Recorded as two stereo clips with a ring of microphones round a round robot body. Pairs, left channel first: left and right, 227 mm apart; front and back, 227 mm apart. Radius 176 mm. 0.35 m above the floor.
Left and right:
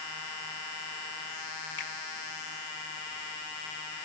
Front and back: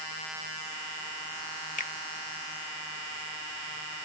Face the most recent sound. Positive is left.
turn(degrees=50)